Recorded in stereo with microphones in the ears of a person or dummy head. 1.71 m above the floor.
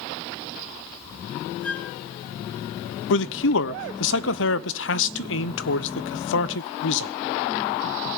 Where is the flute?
15° left (ahead or behind), 3 m.